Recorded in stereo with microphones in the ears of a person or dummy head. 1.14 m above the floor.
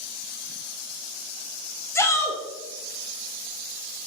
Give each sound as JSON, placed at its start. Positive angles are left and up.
{"t": 1.9, "sound": "a shout", "side_deg": 10, "distance_m": 0.6}